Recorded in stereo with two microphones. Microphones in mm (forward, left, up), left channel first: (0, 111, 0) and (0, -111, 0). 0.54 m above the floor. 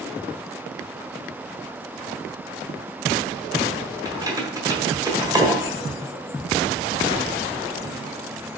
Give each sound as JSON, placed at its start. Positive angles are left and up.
{"t": 4.0, "sound": "keys jangling", "side_deg": -15, "distance_m": 1.3}